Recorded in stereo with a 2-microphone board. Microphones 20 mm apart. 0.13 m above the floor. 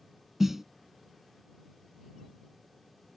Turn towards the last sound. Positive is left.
turn(degrees=-15)  # may be behind; listen again after turning